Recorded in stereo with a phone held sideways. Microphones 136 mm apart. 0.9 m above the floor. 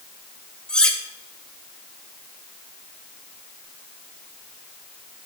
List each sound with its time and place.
0.7 s cutlery clinking: 5° left (ahead or behind), 1.3 m